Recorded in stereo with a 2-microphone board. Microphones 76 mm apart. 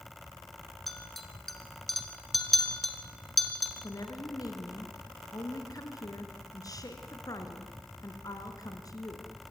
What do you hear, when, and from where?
0.9 s a clink: centre (ahead or behind), 2.0 m
3.8 s a woman speaking: 50° left (ahead or behind), 2.5 m